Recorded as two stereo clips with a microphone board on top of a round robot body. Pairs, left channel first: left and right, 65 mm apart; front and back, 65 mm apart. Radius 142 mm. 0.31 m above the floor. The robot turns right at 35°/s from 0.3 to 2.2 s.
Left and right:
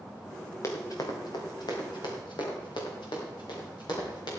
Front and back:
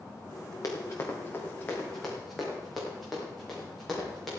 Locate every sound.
0.6 s running footsteps: 45° left, 2 m; by 4.3 s 85° left, 5.5 m